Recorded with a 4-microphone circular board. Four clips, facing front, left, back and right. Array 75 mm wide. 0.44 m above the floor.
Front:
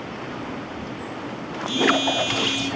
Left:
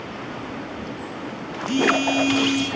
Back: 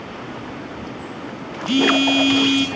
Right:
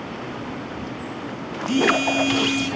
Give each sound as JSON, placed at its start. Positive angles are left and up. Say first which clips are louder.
{"t": 1.7, "sound": "a phone buzzing", "louder": "even, back 4 dB", "azimuth_deg": 175, "distance_m": 3.5}